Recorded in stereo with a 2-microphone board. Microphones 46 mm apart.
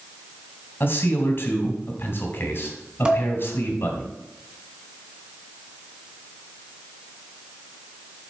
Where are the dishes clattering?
20° right (ahead or behind), 1.5 m.